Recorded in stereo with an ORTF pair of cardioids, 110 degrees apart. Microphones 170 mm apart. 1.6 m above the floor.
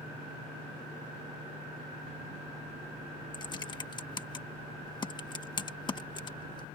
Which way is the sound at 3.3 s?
25° left.